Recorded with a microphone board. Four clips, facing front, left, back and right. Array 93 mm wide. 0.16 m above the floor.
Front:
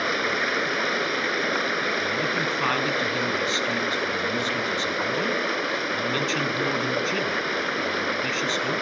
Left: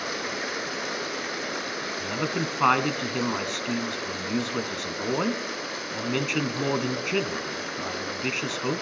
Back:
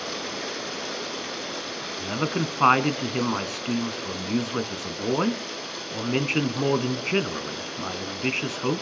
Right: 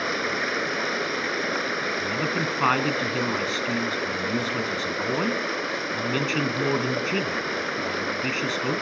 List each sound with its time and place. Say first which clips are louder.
0.0 s running water: right 5 dB, front 7 dB; 25° right, 0.7 m
2.0 s a man speaking: left 2 dB, front 1 dB; 170° left, 1.6 m